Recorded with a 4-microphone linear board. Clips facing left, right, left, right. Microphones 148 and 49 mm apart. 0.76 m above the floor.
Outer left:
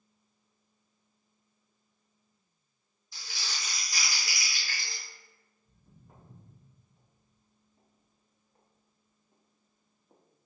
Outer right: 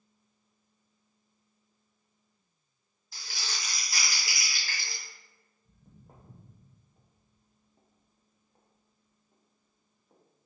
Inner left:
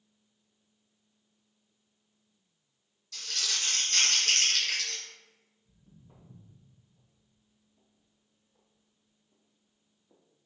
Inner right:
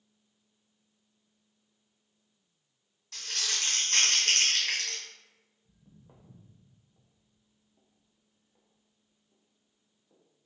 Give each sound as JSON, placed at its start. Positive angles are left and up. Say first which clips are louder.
{"t": 3.1, "sound": "crumpling", "louder": "outer right 1 dB, even", "side_deg": -55, "distance_m": 1.6}
{"t": 5.7, "sound": "footsteps", "louder": "outer right 3 dB, inner right 1 dB", "side_deg": -60, "distance_m": 1.7}